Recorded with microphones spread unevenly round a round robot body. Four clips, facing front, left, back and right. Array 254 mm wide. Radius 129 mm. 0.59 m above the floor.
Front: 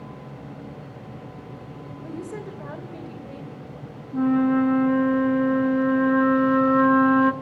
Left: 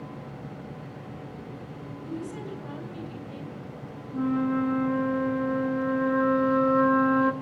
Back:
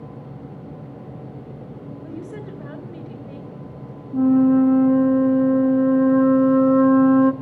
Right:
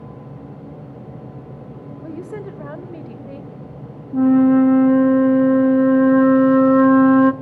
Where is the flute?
105° right, 0.6 m.